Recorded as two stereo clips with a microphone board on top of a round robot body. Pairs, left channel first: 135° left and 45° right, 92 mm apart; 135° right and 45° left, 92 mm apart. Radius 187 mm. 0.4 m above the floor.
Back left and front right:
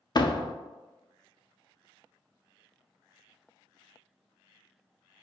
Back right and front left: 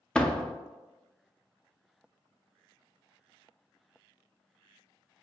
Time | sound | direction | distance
0.1 | a door slam | 150° left | 0.6 m